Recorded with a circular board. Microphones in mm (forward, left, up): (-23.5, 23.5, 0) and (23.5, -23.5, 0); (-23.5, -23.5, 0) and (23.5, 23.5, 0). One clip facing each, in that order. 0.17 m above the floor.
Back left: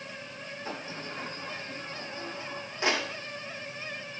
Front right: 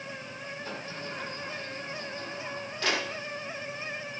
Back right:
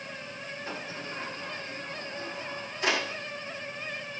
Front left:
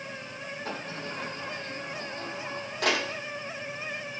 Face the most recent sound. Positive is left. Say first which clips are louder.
# back left 2 dB, front left 2 dB
turn(degrees=65)